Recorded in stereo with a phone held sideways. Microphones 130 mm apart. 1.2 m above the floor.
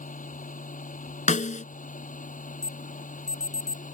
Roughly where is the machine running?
Left.